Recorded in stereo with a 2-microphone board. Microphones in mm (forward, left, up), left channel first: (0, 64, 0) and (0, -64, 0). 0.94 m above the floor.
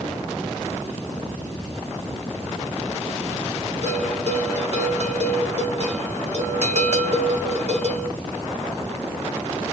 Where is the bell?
60° right (ahead or behind), 1.3 m.